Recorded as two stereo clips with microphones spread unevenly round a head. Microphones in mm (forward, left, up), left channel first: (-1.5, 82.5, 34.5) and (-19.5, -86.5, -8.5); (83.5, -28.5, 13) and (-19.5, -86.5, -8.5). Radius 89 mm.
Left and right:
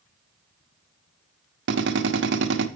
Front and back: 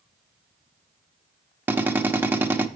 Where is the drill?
75° right, 1.0 m.